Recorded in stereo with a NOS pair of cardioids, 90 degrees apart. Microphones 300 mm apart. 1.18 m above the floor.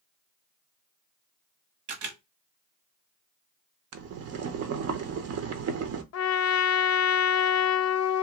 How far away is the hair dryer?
No hair dryer in this recording.